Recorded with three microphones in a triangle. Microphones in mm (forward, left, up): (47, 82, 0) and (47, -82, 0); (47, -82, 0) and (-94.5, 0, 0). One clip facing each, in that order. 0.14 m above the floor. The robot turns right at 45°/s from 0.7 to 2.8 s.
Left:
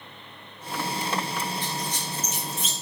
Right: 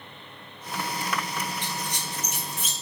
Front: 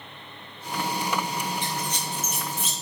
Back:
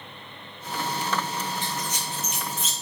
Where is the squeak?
100° right, 0.7 m; by 2.7 s 50° right, 0.7 m.